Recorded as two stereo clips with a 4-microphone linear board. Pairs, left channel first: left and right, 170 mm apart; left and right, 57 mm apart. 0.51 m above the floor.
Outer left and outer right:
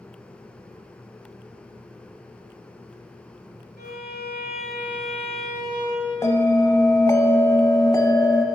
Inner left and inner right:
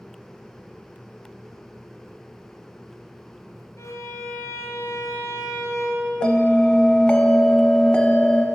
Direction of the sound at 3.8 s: 65° left (ahead or behind).